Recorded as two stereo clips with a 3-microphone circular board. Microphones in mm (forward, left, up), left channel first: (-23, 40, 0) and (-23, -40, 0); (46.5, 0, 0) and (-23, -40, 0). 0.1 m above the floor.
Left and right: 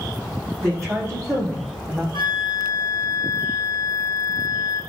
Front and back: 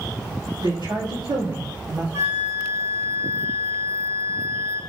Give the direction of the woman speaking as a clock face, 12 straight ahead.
5 o'clock.